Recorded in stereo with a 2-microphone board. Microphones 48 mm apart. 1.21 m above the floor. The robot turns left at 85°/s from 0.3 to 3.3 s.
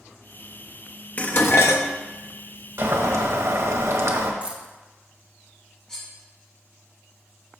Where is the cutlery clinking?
15° left (ahead or behind), 4.5 m.